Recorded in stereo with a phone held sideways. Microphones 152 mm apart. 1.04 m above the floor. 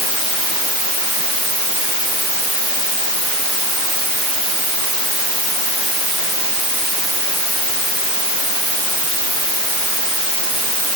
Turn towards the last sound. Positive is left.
No sound to turn to.